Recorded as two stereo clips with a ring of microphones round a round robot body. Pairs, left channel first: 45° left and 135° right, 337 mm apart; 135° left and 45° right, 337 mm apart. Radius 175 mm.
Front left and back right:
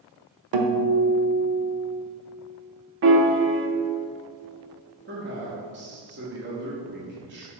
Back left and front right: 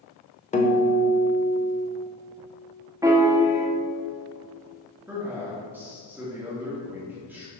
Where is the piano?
120° right, 0.8 m.